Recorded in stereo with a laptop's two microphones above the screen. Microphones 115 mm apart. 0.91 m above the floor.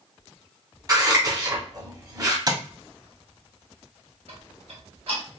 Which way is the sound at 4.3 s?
60° right (ahead or behind).